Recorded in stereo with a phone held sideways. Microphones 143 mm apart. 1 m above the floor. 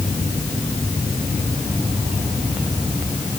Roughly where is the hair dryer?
No hair dryer in this recording.